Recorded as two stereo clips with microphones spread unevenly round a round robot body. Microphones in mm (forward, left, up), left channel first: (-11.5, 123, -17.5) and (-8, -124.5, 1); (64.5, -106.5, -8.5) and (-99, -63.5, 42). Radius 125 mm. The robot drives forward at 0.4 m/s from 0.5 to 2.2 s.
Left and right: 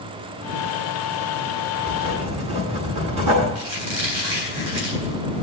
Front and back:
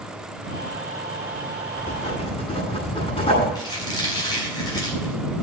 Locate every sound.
1.8 s writing: 75° right, 9.5 m
3.5 s a squeak: 80° right, 7 m